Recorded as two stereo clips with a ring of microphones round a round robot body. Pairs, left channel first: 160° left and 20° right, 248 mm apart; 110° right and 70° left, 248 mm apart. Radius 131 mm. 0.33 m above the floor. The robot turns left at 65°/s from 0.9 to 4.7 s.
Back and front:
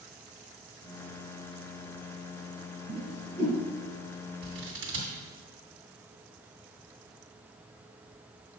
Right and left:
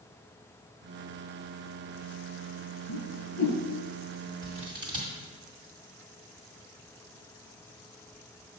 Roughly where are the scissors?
Ahead.